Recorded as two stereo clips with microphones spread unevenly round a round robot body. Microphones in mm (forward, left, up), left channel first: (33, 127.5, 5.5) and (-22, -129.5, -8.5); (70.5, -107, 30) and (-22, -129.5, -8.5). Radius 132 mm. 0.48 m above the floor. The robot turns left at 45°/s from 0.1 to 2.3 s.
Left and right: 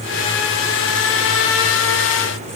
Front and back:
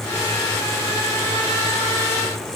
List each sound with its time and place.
Only background noise.